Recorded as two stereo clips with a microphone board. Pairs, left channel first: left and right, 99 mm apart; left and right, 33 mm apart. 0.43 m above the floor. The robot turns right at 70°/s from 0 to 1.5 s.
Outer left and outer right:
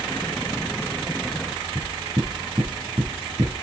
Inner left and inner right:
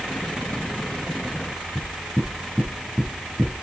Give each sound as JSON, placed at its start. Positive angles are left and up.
{"t": 1.8, "sound": "knocking", "side_deg": -40, "distance_m": 3.5}